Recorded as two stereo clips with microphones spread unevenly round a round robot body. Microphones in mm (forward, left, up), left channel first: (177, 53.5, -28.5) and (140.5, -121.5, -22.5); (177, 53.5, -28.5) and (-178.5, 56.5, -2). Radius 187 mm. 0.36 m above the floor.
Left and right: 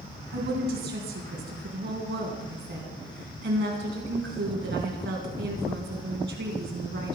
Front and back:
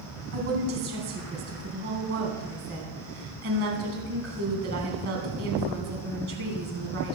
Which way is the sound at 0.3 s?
125° right.